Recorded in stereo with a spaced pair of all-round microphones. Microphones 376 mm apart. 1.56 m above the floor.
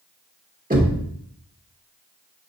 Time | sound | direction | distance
0.7 | knocking | 25° right (ahead or behind) | 1.6 m